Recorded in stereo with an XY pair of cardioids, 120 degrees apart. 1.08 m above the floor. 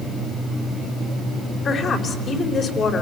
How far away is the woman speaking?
About 4.5 m.